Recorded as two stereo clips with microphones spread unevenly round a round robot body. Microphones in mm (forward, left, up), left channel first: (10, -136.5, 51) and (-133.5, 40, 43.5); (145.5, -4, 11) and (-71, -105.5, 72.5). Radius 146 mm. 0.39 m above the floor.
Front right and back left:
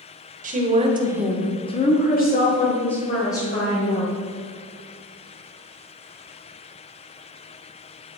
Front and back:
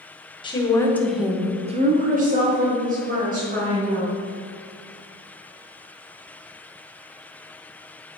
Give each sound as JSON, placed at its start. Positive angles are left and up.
{"t": 0.4, "sound": "a woman speaking", "azimuth_deg": 80, "distance_m": 1.5}